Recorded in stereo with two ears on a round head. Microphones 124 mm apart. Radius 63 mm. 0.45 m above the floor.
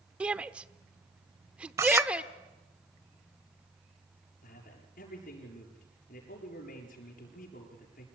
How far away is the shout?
About 0.8 m.